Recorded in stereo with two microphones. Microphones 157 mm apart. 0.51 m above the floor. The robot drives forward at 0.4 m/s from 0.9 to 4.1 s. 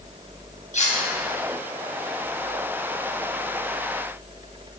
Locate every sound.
0.7 s cutlery clinking: 50° left (ahead or behind), 2.5 m